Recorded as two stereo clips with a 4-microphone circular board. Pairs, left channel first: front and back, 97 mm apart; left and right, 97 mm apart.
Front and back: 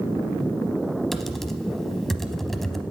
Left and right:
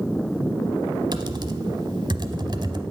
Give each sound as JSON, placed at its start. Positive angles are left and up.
{"t": 1.1, "sound": "typing on a keyboard", "azimuth_deg": -85, "distance_m": 0.8}